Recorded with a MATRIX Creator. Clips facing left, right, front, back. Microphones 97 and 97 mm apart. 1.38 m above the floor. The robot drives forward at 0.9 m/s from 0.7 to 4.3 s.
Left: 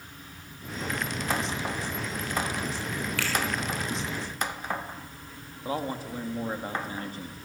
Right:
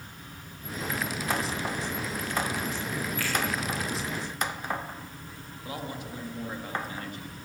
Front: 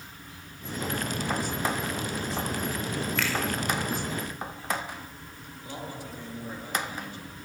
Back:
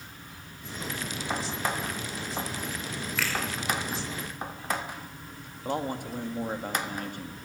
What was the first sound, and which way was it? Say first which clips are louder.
A finger snap: left 1 dB, back 1 dB; 95° left.